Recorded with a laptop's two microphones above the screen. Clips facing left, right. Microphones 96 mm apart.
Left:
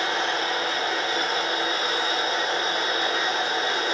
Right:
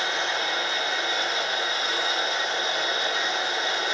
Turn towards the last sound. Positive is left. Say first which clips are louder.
# left 2 dB
turn(degrees=45)  # may be behind; listen again after turning